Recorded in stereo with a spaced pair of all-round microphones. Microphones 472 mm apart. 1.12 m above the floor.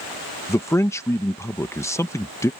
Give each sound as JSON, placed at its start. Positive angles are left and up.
{"t": 0.5, "sound": "a man speaking", "side_deg": 5}